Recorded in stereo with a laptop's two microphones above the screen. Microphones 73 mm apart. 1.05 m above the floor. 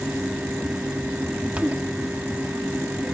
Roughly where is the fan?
Right.